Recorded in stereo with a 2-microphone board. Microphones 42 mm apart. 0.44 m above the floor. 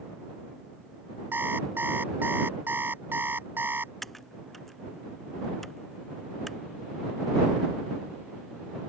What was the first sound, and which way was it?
An alarm clock, 60° right (ahead or behind).